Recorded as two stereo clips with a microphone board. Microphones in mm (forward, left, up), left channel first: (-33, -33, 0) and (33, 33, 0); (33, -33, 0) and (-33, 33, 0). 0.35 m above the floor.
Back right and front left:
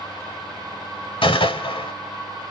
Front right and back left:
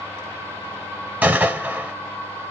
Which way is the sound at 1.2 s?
155° right.